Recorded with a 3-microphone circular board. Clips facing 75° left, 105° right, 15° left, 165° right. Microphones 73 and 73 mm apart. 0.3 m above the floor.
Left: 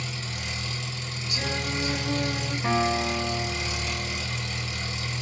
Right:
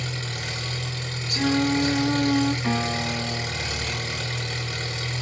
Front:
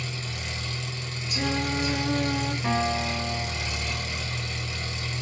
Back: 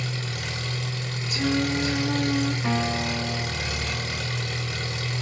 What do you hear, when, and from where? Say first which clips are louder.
0.0 s an engine running: right 3 dB, back 3 dB; 135° right, 1.0 m
1.3 s singing: right 9 dB, back 3 dB; 70° right, 0.8 m
2.6 s a guitar: left 1 dB, even; 105° left, 1.3 m